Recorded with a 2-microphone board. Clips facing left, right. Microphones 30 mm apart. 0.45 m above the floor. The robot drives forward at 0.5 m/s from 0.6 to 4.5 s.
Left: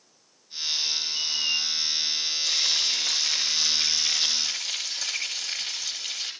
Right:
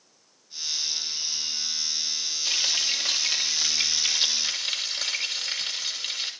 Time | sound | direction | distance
1.1 | a squeak | 50° left (ahead or behind) | 0.7 m
2.5 | frying | 35° right (ahead or behind) | 7.5 m